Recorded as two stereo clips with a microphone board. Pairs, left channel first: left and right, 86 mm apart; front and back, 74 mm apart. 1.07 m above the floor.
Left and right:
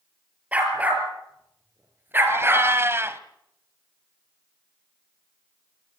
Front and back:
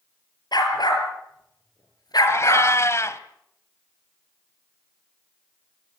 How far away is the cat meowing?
About 1.3 m.